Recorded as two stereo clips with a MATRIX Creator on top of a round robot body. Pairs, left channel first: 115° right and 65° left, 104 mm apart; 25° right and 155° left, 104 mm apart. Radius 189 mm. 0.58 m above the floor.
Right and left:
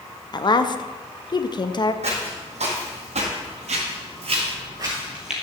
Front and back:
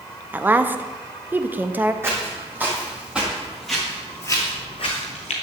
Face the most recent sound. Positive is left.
turn(degrees=-20)